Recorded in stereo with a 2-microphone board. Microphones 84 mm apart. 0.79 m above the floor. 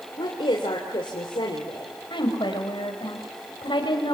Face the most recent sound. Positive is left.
turn(degrees=65)  # may be behind; listen again after turning